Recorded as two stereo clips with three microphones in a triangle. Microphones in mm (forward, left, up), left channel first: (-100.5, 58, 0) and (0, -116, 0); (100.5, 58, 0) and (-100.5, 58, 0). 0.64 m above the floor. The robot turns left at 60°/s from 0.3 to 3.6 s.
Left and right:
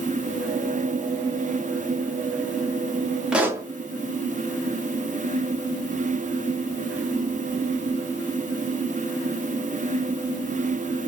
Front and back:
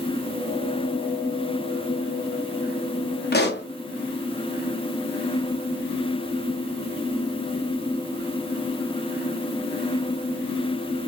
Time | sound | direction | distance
3.3 | a pop | 25° left | 0.6 m